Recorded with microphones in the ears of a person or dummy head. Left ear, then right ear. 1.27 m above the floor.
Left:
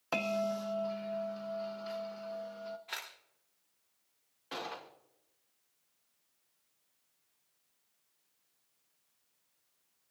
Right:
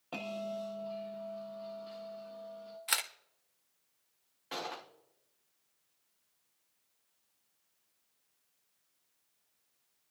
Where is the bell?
65° left (ahead or behind), 1.1 m.